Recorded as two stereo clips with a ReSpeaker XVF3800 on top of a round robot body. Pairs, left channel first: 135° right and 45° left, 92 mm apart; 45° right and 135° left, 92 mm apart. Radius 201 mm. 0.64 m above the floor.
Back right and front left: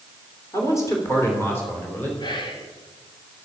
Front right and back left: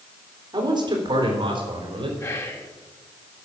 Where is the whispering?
105° right, 2.5 m.